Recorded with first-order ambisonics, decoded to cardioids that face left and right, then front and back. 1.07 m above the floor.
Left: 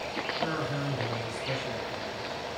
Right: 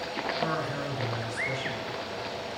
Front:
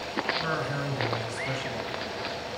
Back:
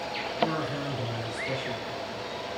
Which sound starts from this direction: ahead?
A man speaking, at 0.4 s.